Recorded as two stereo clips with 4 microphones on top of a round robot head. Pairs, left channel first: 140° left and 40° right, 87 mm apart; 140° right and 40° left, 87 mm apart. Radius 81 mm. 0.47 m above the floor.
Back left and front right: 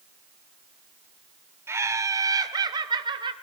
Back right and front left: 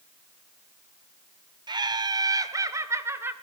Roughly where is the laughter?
Ahead.